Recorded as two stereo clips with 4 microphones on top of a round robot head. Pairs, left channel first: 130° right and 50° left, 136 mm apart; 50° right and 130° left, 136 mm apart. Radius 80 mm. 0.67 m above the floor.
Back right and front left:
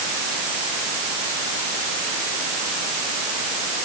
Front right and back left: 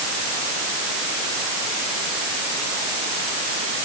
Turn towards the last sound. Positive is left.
No sound to turn to.